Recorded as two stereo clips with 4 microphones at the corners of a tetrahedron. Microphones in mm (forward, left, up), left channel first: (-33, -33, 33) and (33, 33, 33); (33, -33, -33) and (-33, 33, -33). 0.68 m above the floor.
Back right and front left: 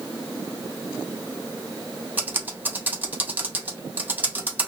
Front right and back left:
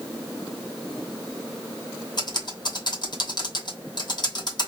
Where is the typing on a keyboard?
25° right, 0.8 m.